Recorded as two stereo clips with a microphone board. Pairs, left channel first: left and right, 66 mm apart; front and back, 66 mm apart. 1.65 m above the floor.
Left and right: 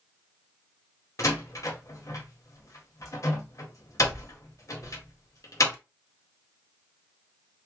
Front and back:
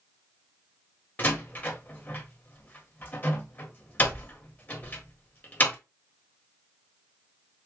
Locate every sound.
1.2 s a door slam: 60° left, 1.0 m